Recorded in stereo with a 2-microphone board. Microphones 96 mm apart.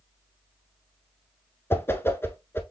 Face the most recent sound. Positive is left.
turn(degrees=25)  # may be behind; listen again after turning